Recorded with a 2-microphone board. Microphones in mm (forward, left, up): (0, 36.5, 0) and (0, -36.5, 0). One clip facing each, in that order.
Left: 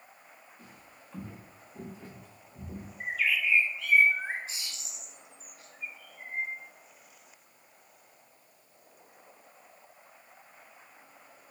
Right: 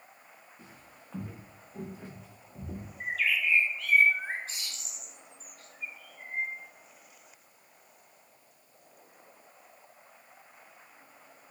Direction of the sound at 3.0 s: 5° left (ahead or behind).